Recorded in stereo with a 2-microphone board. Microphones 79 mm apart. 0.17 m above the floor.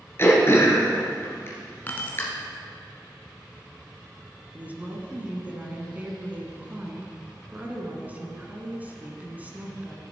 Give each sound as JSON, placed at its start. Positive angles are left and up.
{"t": 0.2, "sound": "throat clearing", "side_deg": 30, "distance_m": 2.0}
{"t": 1.9, "sound": "keys jangling", "side_deg": 25, "distance_m": 1.2}
{"t": 4.5, "sound": "a woman speaking", "side_deg": -20, "distance_m": 1.7}